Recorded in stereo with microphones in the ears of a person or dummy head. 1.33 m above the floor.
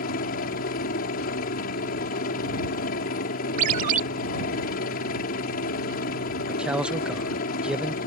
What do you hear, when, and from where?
0.0 s a helicopter: 50° left (ahead or behind)
3.6 s a ringtone: 50° right (ahead or behind)
6.5 s a man speaking: 5° right (ahead or behind)